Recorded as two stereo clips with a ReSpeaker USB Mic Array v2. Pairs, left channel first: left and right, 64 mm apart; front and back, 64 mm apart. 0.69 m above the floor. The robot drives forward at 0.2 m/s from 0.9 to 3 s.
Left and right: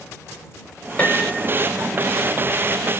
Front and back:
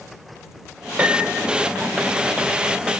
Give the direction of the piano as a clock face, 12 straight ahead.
8 o'clock.